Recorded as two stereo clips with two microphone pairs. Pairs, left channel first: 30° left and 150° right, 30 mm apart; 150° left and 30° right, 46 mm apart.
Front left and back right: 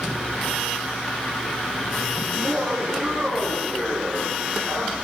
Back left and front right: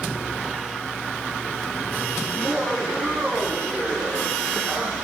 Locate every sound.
2.3 s laughter: 105° right, 8 m; by 4.9 s 100° right, 10.5 m